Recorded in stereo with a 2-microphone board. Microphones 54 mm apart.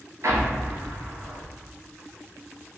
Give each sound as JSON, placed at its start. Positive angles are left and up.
{"t": 0.2, "sound": "an explosion", "side_deg": -80, "distance_m": 0.9}